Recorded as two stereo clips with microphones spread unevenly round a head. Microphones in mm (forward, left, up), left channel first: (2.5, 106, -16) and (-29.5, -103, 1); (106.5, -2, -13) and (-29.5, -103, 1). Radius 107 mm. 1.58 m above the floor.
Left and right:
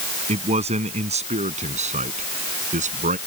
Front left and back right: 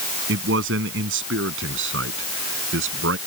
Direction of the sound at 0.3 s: 160° right.